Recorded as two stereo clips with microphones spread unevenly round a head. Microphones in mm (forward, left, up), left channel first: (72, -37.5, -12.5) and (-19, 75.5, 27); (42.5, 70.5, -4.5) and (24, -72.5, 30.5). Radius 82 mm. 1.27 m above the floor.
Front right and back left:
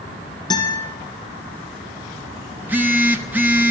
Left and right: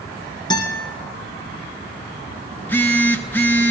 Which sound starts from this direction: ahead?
A guitar, at 0.5 s.